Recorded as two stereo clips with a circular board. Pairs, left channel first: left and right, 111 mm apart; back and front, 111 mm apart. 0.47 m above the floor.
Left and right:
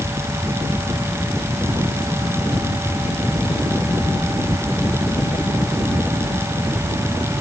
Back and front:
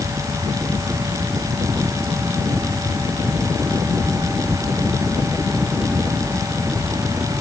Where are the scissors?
No scissors in this recording.